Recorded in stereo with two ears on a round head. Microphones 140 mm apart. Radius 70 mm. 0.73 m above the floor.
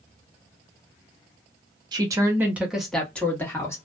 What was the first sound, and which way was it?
A woman speaking, 25° right (ahead or behind).